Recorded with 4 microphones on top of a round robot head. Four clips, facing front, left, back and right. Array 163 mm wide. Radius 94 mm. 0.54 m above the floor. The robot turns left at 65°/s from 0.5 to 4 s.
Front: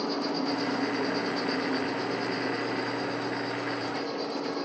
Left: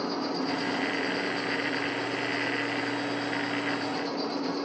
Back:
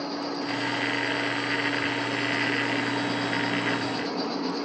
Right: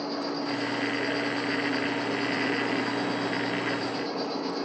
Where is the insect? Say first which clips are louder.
Left 1 dB, front 1 dB; 65° left, 6 m; by 4.7 s 165° right, 6 m.